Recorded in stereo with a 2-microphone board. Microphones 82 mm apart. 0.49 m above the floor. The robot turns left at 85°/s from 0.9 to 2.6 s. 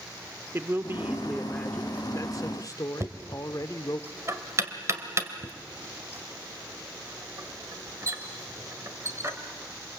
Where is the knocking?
35° right (ahead or behind), 1.7 m.